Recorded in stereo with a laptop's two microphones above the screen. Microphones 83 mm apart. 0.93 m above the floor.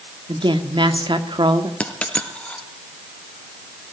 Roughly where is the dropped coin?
Centre.